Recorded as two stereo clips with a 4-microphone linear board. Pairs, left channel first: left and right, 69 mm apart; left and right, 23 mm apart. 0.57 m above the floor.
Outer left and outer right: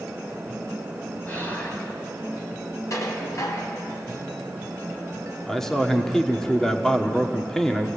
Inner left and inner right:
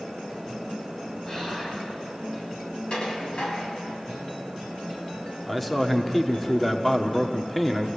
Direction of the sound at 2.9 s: 50° left (ahead or behind).